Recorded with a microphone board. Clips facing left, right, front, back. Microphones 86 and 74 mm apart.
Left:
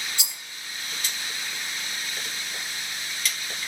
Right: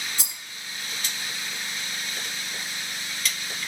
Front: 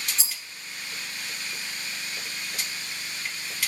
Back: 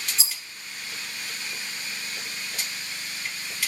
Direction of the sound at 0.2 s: 90° right.